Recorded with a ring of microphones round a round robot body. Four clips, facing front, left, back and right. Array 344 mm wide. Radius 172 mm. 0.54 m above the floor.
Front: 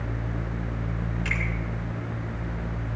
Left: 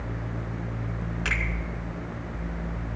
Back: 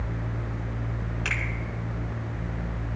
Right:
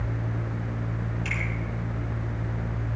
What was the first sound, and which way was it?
A finger snap, 130° left.